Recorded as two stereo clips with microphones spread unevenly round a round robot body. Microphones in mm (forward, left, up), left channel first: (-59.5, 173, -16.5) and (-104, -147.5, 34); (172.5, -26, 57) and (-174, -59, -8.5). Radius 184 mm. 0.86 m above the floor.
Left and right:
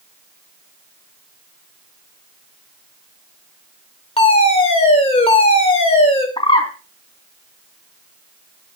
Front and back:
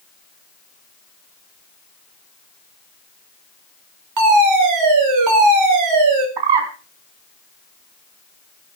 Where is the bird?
155° left, 4.5 m.